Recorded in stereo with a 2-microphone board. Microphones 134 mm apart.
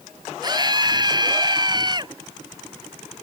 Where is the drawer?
I don't hear a drawer.